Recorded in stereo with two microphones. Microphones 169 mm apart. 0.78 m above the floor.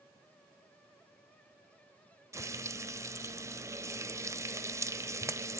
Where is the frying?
20° right (ahead or behind), 0.7 m.